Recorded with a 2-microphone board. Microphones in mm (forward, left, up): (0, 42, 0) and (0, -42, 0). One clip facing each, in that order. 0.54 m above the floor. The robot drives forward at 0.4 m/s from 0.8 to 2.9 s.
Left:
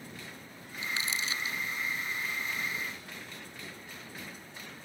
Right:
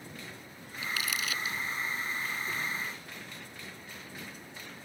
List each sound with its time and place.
0.8 s crumpling: 30° left (ahead or behind)